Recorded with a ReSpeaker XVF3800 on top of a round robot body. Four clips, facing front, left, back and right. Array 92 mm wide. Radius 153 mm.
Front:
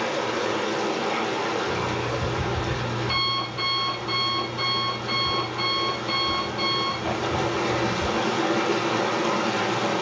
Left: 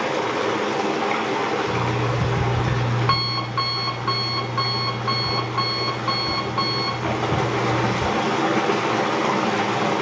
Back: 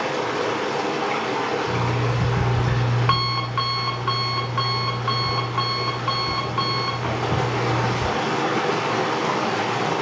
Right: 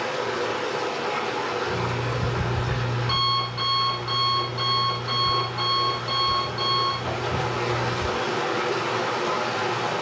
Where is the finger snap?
I don't hear a finger snap.